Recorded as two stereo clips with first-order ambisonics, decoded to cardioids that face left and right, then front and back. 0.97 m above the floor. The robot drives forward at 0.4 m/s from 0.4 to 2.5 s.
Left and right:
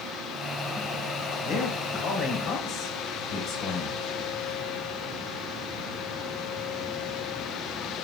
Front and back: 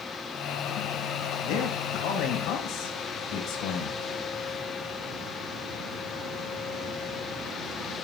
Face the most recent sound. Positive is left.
turn(degrees=45)